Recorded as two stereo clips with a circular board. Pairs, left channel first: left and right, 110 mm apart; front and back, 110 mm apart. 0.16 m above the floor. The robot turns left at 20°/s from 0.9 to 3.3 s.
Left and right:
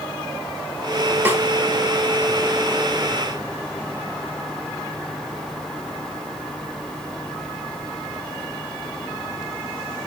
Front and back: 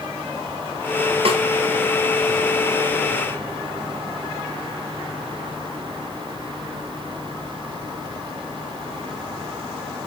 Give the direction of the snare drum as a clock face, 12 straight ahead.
5 o'clock.